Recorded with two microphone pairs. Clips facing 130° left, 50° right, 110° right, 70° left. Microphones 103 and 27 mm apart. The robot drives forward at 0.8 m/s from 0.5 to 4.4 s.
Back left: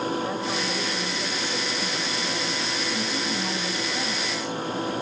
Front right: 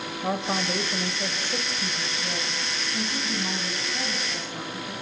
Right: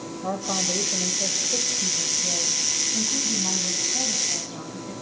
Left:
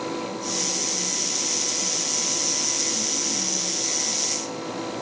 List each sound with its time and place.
0.2 s a woman speaking: 100° right, 2 m; by 4.9 s 155° right, 4 m